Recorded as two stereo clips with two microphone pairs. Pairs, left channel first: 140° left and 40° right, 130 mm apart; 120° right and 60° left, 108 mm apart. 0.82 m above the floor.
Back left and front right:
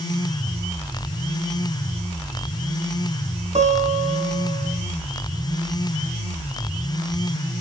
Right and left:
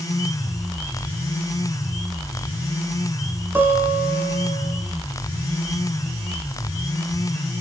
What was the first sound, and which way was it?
A guitar, 10° right.